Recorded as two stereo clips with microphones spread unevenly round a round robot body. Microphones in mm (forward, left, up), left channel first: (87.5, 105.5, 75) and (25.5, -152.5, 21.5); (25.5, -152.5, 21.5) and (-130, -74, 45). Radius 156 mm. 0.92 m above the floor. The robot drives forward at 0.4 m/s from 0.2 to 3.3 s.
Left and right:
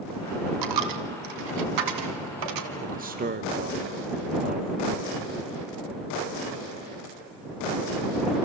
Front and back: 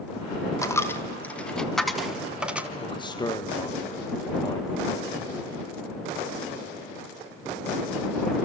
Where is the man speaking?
70° right, 1.3 m; by 5.3 s 80° right, 1.3 m.